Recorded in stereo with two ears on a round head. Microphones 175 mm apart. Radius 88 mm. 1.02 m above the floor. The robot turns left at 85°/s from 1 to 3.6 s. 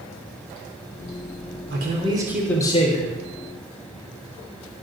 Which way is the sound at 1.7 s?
120° right.